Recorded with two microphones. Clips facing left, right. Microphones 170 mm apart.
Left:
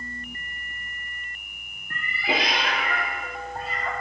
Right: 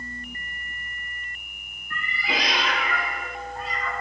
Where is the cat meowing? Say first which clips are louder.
Left 3 dB; 60° left (ahead or behind), 1.4 m.